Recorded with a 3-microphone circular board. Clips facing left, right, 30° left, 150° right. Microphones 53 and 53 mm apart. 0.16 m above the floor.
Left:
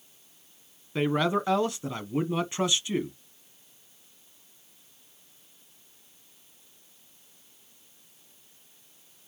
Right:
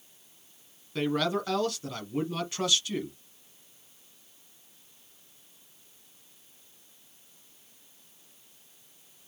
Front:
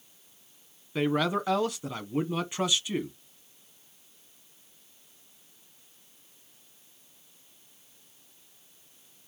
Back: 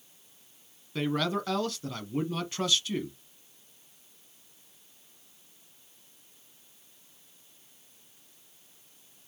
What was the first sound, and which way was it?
A man speaking, 75° left.